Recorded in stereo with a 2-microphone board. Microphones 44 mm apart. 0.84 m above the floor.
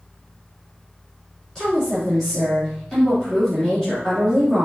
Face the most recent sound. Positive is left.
turn(degrees=15)  # may be behind; listen again after turning